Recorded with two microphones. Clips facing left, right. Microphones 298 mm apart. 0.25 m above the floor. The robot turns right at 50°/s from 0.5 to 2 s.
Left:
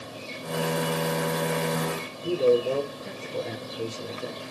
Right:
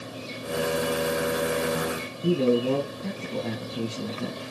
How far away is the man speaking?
About 4.5 m.